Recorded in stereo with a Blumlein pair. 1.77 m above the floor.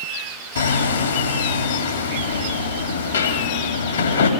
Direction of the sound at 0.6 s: 70° left.